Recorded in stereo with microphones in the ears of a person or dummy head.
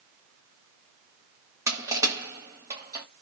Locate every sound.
1.7 s crushing: 20° right (ahead or behind), 1.1 m